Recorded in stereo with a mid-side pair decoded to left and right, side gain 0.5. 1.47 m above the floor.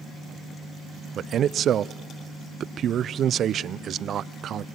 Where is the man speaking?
55° right, 0.5 m.